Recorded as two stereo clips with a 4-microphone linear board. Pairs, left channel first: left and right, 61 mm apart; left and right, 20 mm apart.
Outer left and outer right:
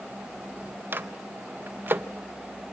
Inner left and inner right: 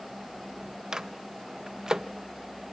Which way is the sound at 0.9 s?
35° right (ahead or behind).